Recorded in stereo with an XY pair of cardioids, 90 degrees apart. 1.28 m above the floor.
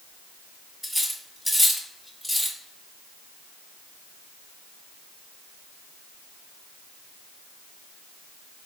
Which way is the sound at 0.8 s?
5° left.